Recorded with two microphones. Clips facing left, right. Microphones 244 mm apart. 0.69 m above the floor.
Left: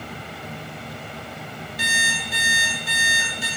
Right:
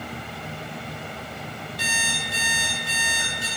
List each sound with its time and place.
1.8 s an alarm clock: 20° left (ahead or behind), 1.9 m